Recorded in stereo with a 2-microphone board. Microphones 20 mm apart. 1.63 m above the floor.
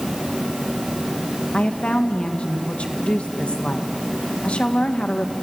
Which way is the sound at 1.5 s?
80° left.